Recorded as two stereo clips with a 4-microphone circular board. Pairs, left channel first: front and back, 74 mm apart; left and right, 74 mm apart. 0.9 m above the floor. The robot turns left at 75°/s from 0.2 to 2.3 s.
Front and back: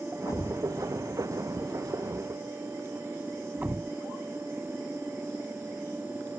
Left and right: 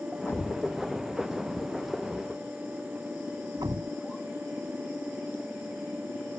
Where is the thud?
40° left; by 3.9 s 115° right.